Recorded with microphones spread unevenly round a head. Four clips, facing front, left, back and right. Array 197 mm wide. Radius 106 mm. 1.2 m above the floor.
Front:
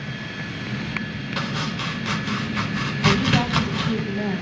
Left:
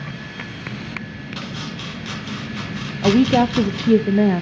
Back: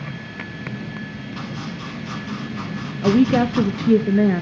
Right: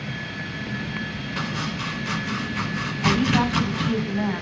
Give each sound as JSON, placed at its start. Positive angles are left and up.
{"t": 1.4, "sound": "chopping", "azimuth_deg": -5, "distance_m": 4.5}
{"t": 3.0, "sound": "a woman speaking", "azimuth_deg": 135, "distance_m": 0.8}